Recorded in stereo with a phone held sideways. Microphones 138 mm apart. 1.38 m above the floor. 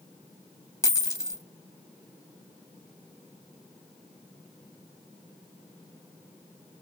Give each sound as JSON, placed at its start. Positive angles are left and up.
{"t": 0.8, "sound": "a dropped coin", "side_deg": 25, "distance_m": 0.7}